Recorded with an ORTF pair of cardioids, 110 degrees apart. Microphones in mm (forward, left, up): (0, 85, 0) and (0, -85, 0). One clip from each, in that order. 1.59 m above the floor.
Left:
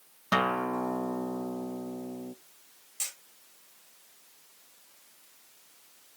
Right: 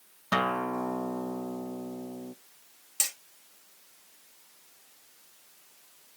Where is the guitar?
5° left, 0.6 m.